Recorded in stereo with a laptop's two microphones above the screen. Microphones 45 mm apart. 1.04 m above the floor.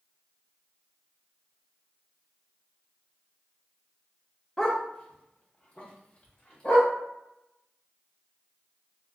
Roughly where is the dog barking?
Centre.